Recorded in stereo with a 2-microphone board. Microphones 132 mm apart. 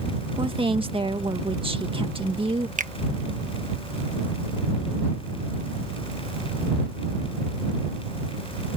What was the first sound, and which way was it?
A woman speaking, 45° right (ahead or behind).